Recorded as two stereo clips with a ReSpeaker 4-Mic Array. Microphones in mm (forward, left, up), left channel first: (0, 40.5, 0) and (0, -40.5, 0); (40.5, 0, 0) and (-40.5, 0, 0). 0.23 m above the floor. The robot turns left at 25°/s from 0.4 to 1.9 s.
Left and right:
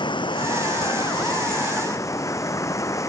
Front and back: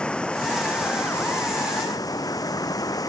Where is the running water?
80° left; by 3.1 s 40° left.